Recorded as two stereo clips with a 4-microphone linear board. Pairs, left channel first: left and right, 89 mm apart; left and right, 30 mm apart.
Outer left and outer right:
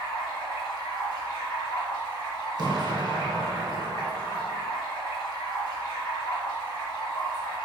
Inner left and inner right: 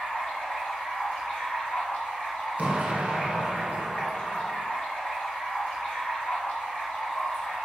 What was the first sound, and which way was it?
Running water, 60° left (ahead or behind).